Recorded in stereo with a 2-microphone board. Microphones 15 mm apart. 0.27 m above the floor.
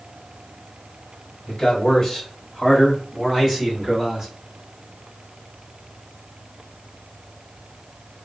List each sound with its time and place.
1.5 s a man speaking: 30° left (ahead or behind), 1.5 m; by 4.3 s 30° right (ahead or behind), 1.6 m